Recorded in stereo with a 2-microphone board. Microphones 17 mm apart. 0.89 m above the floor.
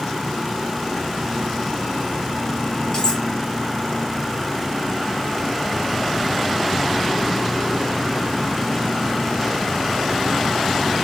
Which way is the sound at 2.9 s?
40° left (ahead or behind).